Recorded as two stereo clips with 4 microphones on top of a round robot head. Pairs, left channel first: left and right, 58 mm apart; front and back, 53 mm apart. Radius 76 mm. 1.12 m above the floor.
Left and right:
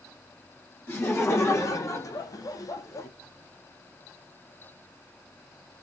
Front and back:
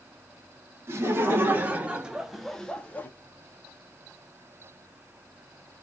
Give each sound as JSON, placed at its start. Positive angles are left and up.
{"t": 0.9, "sound": "laughter", "azimuth_deg": 140, "distance_m": 1.5}